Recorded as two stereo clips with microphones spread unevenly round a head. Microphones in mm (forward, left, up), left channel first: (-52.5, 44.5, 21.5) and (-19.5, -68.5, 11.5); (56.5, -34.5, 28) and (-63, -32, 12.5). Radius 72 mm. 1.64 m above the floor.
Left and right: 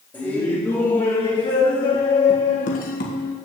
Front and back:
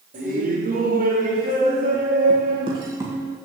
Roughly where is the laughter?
Behind.